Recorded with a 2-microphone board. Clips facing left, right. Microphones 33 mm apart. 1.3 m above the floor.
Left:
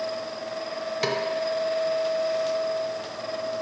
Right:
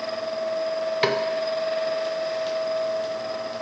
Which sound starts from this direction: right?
A snare drum, at 1.0 s.